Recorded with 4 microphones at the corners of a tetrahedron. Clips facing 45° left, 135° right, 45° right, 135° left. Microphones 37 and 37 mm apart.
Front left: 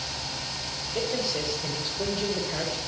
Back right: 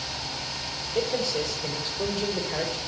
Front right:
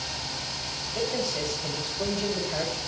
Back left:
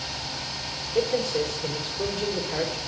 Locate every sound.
0.9 s a man speaking: 120° left, 5 m